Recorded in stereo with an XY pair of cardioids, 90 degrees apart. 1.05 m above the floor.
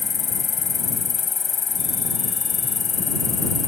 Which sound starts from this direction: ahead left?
An insect, at 0.0 s.